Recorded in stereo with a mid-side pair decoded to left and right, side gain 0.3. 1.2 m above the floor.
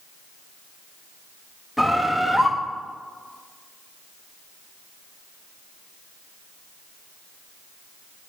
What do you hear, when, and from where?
1.8 s a bird: straight ahead, 1.2 m